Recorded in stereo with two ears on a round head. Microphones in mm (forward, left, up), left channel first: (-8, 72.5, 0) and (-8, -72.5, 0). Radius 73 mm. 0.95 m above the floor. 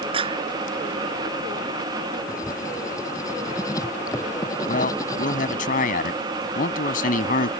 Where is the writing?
20° left (ahead or behind).